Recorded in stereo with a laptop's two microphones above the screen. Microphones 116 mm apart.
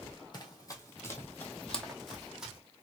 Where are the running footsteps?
40° left (ahead or behind), 1.3 m; by 2.6 s 10° right (ahead or behind), 1.5 m.